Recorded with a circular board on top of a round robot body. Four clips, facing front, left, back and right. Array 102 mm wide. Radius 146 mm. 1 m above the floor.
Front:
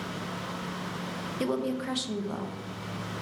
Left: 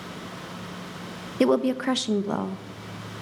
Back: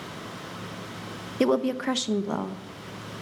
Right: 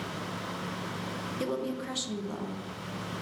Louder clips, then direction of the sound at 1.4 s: Left 13 dB, back 7 dB; 120° left.